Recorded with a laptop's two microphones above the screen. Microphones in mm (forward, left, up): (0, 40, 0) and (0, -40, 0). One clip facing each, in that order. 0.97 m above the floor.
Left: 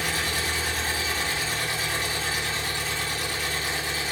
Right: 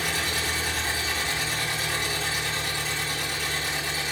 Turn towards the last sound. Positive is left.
turn(degrees=-30)  # may be behind; listen again after turning